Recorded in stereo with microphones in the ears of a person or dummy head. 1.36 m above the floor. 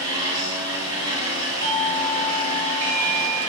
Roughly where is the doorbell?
Centre.